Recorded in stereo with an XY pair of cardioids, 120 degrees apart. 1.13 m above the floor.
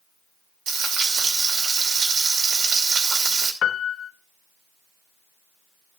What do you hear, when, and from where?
0.7 s frying: 60° right, 2.5 m
3.6 s a piano: 55° left, 0.6 m